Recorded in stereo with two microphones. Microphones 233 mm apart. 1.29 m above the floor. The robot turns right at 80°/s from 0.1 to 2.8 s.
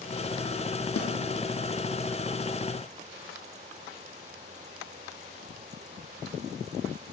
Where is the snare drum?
75° left (ahead or behind), 0.7 m; by 1.1 s 85° left, 0.7 m.